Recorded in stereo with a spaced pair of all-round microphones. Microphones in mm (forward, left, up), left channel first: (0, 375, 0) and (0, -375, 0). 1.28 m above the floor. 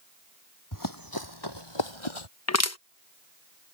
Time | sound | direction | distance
0.7 | running footsteps | 25° left (ahead or behind) | ?
2.5 | crushing | 20° left (ahead or behind) | ?